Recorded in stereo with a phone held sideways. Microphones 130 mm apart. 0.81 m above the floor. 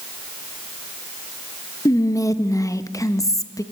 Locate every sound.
1.9 s whispering: 25° left (ahead or behind), 0.5 m